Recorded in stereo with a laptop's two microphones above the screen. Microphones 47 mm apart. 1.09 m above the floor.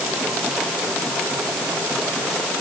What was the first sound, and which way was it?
Only background noise.